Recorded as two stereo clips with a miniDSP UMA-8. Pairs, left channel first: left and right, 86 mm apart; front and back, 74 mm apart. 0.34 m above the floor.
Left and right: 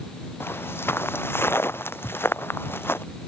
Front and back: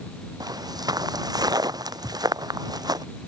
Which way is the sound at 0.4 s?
155° left.